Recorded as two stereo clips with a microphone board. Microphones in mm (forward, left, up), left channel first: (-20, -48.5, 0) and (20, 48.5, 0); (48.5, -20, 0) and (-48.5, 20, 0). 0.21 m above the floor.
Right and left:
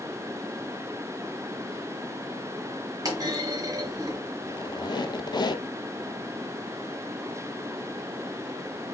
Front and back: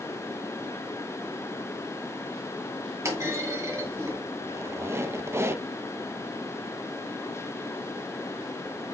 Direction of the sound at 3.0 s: 105° left.